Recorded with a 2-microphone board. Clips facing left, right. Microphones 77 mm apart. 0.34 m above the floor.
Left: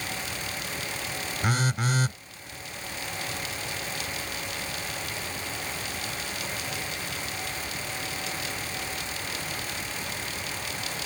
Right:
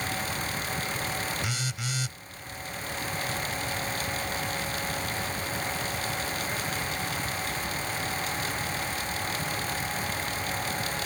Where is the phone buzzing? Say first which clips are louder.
Left 7 dB; 45° left (ahead or behind).